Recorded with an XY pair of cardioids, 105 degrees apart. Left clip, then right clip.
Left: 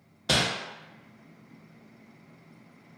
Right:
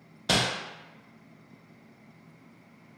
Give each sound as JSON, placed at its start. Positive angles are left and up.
{"t": 0.3, "sound": "crumpling", "azimuth_deg": -10, "distance_m": 0.6}